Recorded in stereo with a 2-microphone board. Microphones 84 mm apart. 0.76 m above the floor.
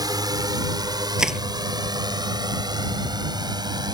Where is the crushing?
5° right (ahead or behind).